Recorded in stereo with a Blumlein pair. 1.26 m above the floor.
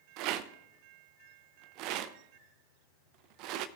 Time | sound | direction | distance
0.2 | a rattle | 40° right | 0.5 m